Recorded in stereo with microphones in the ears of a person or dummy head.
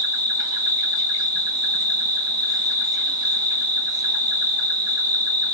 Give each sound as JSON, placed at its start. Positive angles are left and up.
{"t": 0.0, "sound": "an insect", "side_deg": -25, "distance_m": 1.7}